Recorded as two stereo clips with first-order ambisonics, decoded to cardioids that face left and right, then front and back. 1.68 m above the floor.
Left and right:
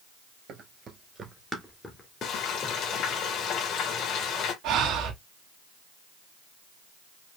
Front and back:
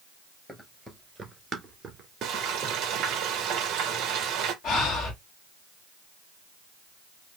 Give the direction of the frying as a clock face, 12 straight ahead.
7 o'clock.